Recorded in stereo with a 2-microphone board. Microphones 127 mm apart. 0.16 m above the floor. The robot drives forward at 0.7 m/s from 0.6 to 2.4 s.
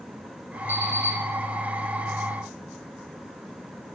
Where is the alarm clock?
20° left (ahead or behind), 3.5 m.